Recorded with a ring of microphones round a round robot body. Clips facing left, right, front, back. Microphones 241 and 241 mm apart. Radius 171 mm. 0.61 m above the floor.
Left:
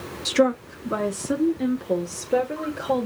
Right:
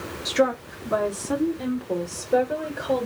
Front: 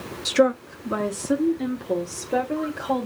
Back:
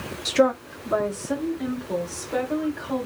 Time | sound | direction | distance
0.2 | a woman speaking | 70° left | 0.6 m